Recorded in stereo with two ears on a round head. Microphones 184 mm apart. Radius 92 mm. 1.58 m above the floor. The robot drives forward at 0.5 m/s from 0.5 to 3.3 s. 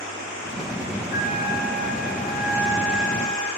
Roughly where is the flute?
Centre.